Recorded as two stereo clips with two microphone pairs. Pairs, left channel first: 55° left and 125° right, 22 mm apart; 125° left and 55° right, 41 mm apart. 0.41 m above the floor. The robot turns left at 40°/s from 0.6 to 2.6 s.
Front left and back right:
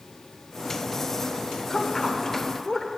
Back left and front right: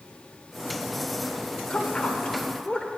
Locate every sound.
1.7 s a woman speaking: 115° left, 1.0 m; by 2.9 s 80° left, 1.0 m